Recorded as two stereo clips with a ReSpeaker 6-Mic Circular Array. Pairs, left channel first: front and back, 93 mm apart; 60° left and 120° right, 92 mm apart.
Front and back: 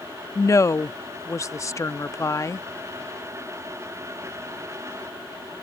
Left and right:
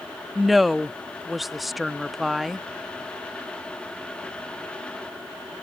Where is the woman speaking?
30° right.